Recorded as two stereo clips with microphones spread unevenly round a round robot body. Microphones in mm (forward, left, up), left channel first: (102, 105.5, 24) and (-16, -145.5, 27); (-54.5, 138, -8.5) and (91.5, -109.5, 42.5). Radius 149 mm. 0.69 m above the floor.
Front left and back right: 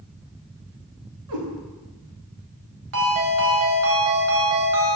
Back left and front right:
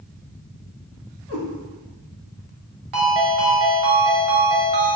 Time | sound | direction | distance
1.3 | a cat meowing | 115° right | 1.8 m
2.9 | a ringtone | 80° right | 1.6 m